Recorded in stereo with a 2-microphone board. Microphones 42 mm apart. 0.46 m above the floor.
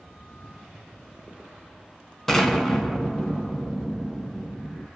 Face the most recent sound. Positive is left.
turn(degrees=5)  # may be behind; listen again after turning